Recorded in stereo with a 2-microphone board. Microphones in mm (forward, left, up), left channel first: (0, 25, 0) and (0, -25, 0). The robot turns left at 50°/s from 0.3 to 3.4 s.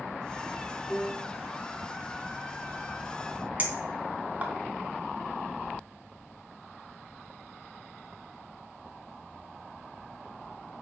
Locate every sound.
0.9 s a piano: 10° left (ahead or behind), 1.1 m; by 1.4 s centre (ahead or behind), 1.1 m
3.6 s a clink: 35° right (ahead or behind), 1.1 m